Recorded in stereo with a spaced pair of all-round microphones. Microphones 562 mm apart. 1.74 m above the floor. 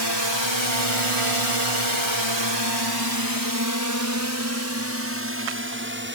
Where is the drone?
45° right (ahead or behind); by 6.2 s 20° right (ahead or behind).